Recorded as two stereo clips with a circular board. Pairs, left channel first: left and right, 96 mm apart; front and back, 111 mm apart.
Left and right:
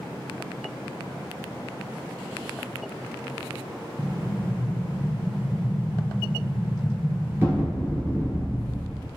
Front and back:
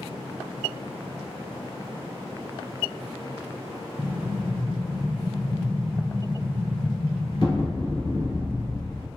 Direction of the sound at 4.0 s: 30° right.